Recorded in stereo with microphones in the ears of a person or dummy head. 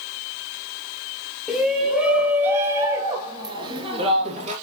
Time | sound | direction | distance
1.5 | a shout | centre (ahead or behind) | 3 m